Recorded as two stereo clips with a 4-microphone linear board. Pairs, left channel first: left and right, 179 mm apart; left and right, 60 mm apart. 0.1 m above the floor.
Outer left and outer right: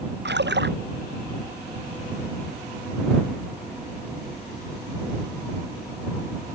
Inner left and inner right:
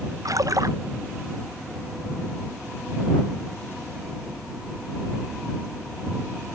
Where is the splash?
75° right (ahead or behind).